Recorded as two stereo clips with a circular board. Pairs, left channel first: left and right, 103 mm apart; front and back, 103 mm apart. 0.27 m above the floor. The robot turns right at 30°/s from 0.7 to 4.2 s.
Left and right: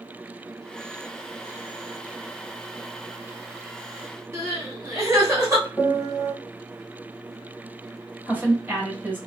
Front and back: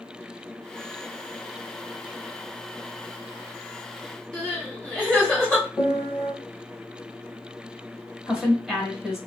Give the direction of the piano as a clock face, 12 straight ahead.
10 o'clock.